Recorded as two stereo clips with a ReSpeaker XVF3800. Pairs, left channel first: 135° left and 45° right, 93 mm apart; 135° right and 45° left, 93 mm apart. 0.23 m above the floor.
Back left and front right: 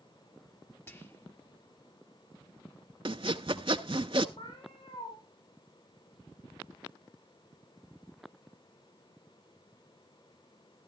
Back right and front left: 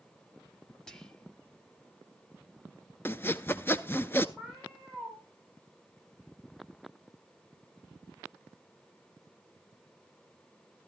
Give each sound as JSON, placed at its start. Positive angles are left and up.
{"t": 0.9, "sound": "whispering", "azimuth_deg": 150, "distance_m": 1.3}
{"t": 3.0, "sound": "sawing", "azimuth_deg": -70, "distance_m": 0.5}
{"t": 4.4, "sound": "a cat meowing", "azimuth_deg": 150, "distance_m": 6.5}